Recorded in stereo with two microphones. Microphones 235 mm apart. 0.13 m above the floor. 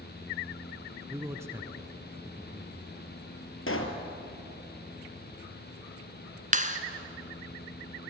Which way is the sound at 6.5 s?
35° right (ahead or behind).